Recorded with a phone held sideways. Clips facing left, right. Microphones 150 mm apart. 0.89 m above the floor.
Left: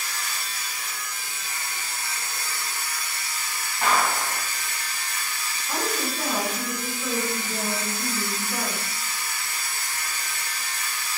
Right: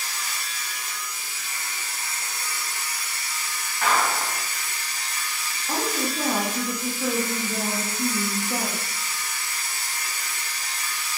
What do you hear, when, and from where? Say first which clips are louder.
0.0 s a machine running: left 1 dB; 55° left (ahead or behind), 0.8 m
3.8 s a clap: even; 25° left (ahead or behind), 1.6 m
5.7 s a woman speaking: right 2 dB; 40° right (ahead or behind), 0.8 m